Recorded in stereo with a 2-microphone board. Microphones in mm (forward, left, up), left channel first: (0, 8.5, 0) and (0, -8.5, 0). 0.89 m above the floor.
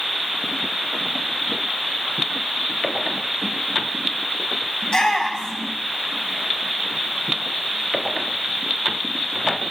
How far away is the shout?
About 7 m.